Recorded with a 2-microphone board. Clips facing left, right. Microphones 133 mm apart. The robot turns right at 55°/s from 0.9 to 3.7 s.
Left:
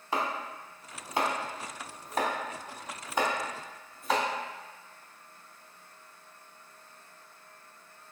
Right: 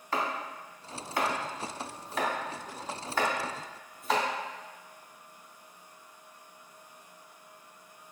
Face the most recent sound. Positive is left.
turn(degrees=0)  # may be behind; listen again after turning